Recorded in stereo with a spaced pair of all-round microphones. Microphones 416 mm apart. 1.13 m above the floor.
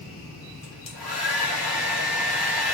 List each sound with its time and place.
0.6 s a hair dryer: 60° left (ahead or behind), 2.5 m